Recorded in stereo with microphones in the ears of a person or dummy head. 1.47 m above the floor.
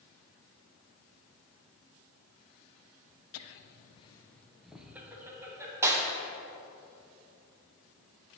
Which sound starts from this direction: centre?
A clap, at 5.8 s.